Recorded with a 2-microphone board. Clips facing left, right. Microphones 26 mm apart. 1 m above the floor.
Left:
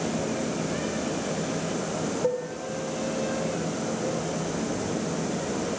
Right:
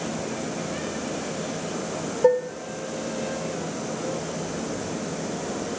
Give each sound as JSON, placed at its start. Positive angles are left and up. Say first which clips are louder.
{"t": 2.2, "sound": "dishes clattering", "louder": "right 11 dB", "side_deg": -50, "distance_m": 2.5}